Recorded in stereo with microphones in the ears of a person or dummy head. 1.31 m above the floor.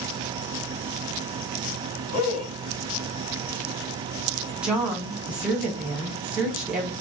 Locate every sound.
2.1 s a man speaking: 55° left (ahead or behind), 2 m
4.6 s a woman speaking: 5° right (ahead or behind), 1.0 m